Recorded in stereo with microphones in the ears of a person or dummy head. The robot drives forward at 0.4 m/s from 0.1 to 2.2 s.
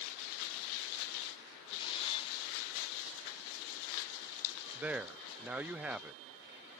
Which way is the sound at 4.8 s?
10° right (ahead or behind).